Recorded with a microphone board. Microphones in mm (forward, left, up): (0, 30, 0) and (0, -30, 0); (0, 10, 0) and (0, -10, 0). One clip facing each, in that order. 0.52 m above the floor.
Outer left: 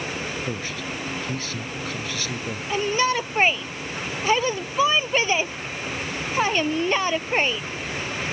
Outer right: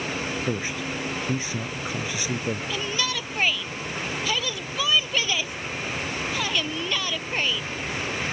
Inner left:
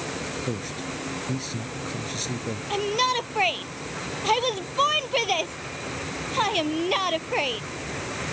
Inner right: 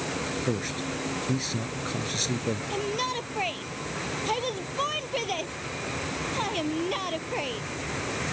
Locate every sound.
0.5 s a man speaking: 15° right (ahead or behind)
2.7 s a shout: 35° left (ahead or behind)